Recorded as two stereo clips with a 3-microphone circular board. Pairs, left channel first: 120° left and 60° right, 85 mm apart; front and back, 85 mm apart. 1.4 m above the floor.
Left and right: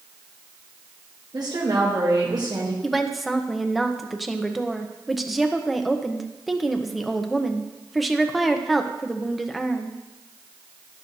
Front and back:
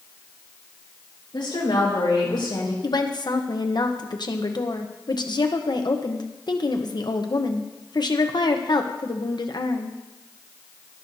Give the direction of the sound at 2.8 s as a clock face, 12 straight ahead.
11 o'clock.